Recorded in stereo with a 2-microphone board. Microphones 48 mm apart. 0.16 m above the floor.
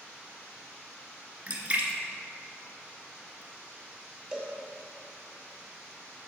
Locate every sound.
1.5 s a splash: 30° right (ahead or behind), 1.2 m
4.3 s a cowbell: 15° right (ahead or behind), 2.5 m